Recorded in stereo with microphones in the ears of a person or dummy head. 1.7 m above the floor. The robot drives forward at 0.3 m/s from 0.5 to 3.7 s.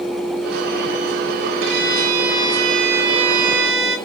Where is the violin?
75° right (ahead or behind), 3 m; by 4.0 s 65° right (ahead or behind), 3 m.